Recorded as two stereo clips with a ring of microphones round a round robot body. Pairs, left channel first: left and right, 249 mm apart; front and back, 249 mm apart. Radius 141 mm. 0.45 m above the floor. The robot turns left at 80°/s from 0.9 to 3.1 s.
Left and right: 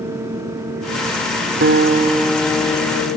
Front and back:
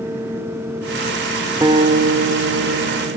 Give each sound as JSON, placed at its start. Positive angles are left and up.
{"t": 1.6, "sound": "a guitar", "azimuth_deg": -110, "distance_m": 1.9}